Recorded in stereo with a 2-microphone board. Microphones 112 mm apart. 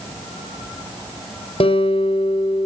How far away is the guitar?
About 5.5 m.